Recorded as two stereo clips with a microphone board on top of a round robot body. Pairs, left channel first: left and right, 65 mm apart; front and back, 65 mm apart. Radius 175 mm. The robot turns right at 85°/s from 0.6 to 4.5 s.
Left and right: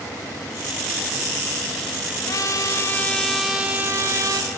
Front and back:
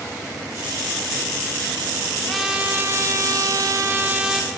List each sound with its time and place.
2.3 s a trumpet: 85° left, 1.2 m; by 4.5 s 90° right, 1.2 m